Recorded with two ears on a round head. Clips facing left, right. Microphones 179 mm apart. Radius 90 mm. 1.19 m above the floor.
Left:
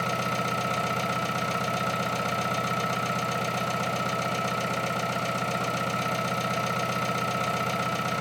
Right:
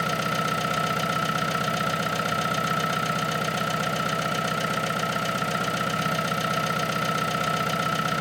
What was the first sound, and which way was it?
An engine running, 10° right (ahead or behind).